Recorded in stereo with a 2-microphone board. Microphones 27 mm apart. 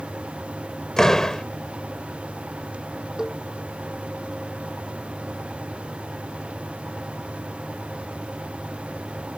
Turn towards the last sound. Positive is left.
turn(degrees=-25)  # may be behind; listen again after turning